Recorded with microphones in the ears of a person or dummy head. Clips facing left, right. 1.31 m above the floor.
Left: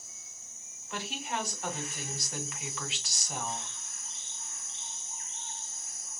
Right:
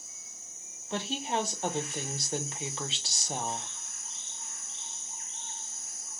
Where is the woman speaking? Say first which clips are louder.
Right 5 dB; 25° right (ahead or behind), 0.8 m.